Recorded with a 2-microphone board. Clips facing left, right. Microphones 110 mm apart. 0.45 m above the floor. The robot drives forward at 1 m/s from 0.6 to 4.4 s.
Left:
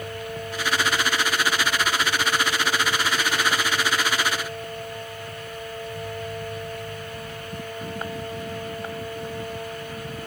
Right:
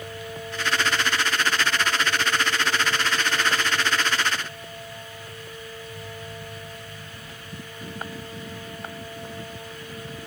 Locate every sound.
Only background noise.